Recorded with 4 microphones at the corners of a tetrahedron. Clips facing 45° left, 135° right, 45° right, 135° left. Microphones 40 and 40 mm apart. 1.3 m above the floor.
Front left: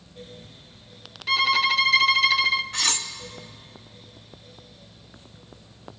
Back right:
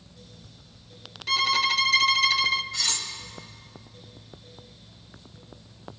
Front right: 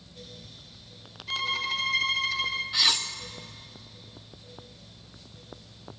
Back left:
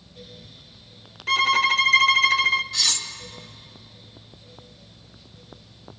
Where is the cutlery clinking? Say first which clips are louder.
Front left 3 dB, front right 1 dB; 25° left, 1.0 m.